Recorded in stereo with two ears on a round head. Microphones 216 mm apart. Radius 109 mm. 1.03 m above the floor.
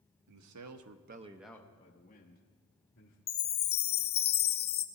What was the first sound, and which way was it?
A man speaking, 80° right.